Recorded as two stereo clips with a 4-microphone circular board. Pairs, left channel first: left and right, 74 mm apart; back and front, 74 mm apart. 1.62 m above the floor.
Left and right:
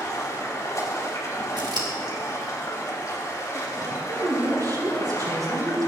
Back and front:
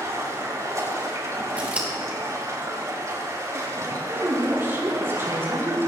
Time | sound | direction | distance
0.0 | running water | 45° left | 5 m
1.6 | scissors | 70° right | 2.5 m
3.9 | a woman speaking | 55° right | 4.5 m